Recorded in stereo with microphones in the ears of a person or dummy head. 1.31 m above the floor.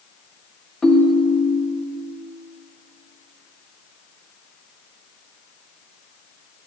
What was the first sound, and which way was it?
A ringtone, 5° left (ahead or behind).